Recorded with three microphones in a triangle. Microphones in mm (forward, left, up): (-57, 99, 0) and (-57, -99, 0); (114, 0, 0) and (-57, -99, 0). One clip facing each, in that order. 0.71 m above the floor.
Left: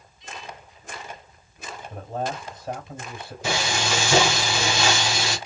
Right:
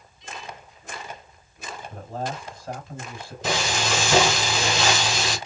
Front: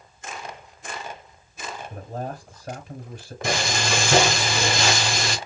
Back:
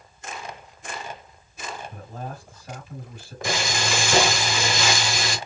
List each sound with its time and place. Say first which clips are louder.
1.9 s a man speaking: left 2 dB, front 4 dB; 20° left, 3.5 m
3.4 s frying: right 1 dB, front 2 dB; 10° left, 2.5 m